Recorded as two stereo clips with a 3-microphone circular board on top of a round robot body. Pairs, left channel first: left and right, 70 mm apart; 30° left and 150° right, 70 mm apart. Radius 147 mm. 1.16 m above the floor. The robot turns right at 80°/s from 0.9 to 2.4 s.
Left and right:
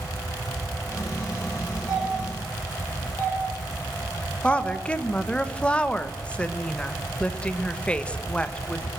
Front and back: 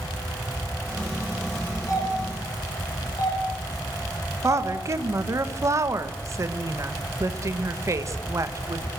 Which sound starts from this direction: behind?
A woman speaking, at 4.4 s.